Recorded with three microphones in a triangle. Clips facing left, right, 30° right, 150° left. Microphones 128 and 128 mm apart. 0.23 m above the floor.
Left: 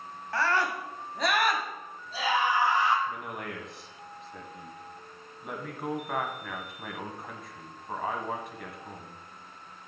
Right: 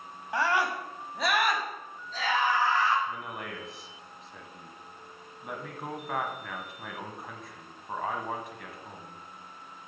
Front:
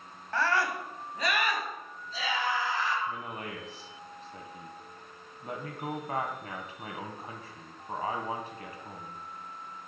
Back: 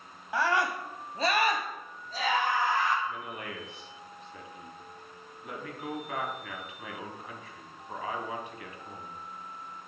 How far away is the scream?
About 1.4 m.